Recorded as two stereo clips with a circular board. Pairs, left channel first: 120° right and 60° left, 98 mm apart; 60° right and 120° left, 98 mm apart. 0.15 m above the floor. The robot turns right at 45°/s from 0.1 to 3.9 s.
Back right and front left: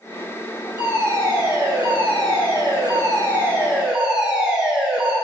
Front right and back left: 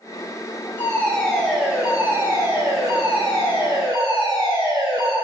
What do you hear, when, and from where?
0.8 s a fire alarm: straight ahead, 4 m; by 5.2 s 140° left, 4 m